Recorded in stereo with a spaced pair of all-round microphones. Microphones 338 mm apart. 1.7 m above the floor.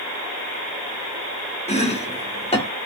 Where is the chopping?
20° left (ahead or behind), 1.3 m.